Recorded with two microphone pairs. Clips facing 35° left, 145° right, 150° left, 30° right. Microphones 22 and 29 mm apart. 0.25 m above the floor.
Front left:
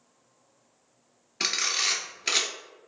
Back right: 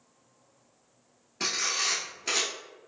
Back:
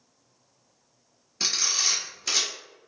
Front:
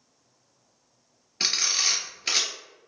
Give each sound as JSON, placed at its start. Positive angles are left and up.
{"t": 1.4, "sound": "a camera shutter", "azimuth_deg": 20, "distance_m": 0.9}